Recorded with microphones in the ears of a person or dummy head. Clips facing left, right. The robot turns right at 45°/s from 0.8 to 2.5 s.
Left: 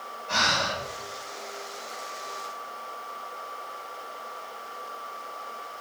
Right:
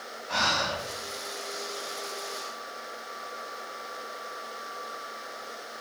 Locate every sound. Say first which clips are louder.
0.3 s breathing: left 1 dB; 70° left (ahead or behind), 5 m